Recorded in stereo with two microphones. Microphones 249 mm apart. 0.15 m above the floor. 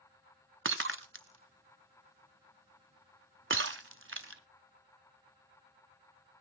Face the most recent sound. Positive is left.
turn(degrees=-50)  # may be behind; listen again after turning